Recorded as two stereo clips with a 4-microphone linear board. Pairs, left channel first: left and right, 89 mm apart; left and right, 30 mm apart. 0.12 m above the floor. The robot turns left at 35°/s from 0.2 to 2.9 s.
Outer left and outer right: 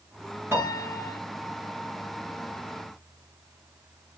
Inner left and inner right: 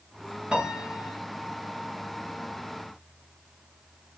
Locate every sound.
0.5 s a piano: 25° right (ahead or behind), 1.9 m; by 1.2 s 35° right (ahead or behind), 1.9 m